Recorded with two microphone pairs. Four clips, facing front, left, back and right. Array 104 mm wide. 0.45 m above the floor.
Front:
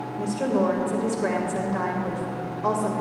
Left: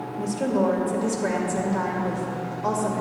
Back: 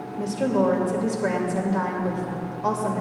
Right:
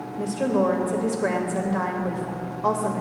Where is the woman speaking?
70° right, 1.9 m.